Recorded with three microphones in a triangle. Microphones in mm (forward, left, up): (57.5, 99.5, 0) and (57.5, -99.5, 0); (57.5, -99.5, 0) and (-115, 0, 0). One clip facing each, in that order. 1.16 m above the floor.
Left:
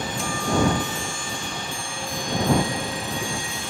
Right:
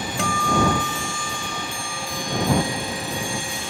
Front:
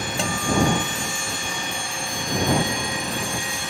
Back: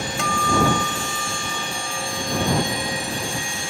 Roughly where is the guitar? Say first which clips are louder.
Right 1 dB, even; right.